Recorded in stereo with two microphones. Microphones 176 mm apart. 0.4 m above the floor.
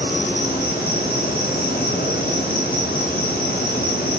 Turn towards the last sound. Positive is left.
turn(degrees=65)  # may be behind; listen again after turning